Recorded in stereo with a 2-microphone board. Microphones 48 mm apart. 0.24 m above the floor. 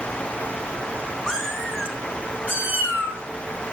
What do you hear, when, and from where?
1.3 s a cat meowing: 5° right (ahead or behind), 3.5 m; by 3.2 s 50° right (ahead or behind), 3 m